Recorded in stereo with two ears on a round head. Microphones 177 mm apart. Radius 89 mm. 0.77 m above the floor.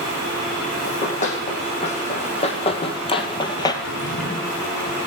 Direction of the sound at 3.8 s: 65° left (ahead or behind).